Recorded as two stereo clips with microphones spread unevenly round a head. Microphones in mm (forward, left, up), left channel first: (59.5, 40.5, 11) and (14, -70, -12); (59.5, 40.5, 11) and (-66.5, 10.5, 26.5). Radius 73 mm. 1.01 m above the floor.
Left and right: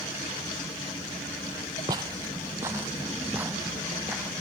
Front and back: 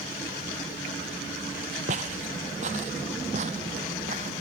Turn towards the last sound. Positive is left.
turn(degrees=160)